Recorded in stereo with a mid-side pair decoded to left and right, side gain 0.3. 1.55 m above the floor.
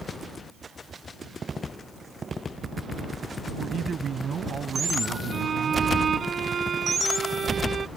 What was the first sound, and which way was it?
A man speaking, 65° right.